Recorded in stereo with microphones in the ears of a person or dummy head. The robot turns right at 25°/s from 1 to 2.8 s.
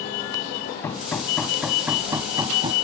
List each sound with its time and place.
0.8 s hammering: 165° left; by 2.7 s 150° right